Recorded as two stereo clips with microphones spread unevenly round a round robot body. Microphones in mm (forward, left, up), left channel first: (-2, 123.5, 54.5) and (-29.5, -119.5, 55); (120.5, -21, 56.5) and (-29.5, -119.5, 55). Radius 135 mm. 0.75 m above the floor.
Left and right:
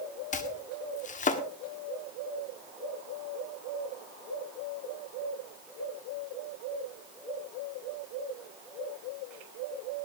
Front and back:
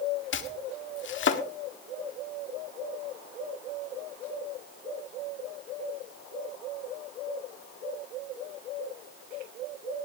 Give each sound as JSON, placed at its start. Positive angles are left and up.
{"t": 0.3, "sound": "chopping", "azimuth_deg": 20, "distance_m": 1.5}